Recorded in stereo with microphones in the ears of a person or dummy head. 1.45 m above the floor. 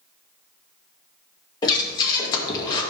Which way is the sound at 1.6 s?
20° left (ahead or behind).